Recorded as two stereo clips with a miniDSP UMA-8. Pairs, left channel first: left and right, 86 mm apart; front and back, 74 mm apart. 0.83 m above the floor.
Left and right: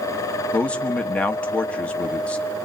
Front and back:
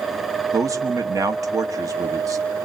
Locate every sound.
0.5 s a man speaking: 160° left, 1.3 m